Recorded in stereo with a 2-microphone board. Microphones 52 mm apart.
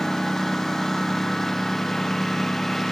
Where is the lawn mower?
5° left (ahead or behind).